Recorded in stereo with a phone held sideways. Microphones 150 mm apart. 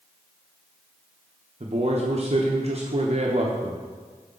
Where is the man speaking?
45° right (ahead or behind), 0.7 m.